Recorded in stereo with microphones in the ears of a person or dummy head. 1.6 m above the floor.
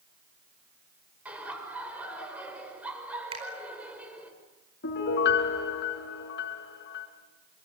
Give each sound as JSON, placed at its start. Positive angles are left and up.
{"t": 1.2, "sound": "laughter", "side_deg": -5, "distance_m": 6.0}
{"t": 3.3, "sound": "a finger snap", "side_deg": -30, "distance_m": 4.5}
{"t": 4.8, "sound": "a piano", "side_deg": 60, "distance_m": 4.0}